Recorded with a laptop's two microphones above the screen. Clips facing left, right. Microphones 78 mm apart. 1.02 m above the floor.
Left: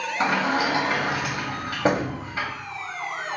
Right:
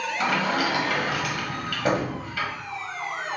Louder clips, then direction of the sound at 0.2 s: Left 2 dB; 25° left (ahead or behind).